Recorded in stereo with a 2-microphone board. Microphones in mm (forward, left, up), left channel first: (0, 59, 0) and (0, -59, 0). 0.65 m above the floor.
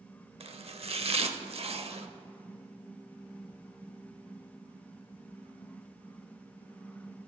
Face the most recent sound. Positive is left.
turn(degrees=-60)  # may be behind; listen again after turning